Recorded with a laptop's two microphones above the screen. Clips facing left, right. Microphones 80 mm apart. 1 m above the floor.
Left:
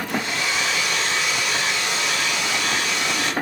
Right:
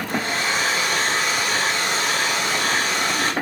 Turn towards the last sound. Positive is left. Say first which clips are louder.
# right 3 dB
turn(degrees=-40)  # may be behind; listen again after turning